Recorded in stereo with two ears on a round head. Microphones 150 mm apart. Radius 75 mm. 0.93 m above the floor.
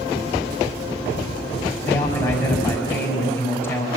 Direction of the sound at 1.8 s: 15° left (ahead or behind).